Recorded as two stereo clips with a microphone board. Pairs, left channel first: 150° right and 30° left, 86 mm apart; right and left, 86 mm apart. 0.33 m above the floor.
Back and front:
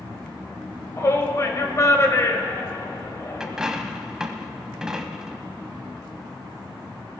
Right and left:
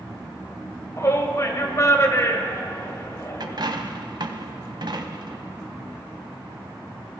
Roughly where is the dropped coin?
Behind left.